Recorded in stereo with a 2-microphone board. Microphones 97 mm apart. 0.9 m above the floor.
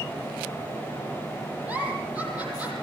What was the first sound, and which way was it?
A giggle, 15° right (ahead or behind).